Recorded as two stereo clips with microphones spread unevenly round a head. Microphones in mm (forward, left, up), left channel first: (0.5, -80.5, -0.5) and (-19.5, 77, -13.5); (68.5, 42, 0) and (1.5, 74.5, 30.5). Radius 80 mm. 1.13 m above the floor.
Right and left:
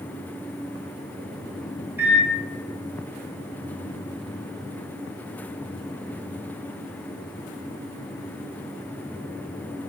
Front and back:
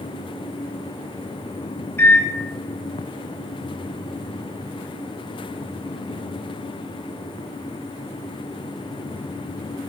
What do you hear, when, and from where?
2.0 s a microwave: 20° left, 0.8 m